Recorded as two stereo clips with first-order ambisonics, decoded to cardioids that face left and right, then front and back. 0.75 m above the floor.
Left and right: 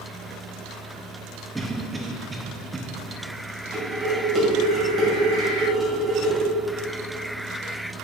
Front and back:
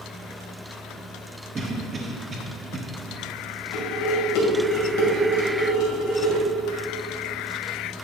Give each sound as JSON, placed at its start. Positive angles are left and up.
{"t": 1.6, "sound": "a cough", "azimuth_deg": -150, "distance_m": 0.7}
{"t": 3.7, "sound": "dishes clattering", "azimuth_deg": -10, "distance_m": 2.5}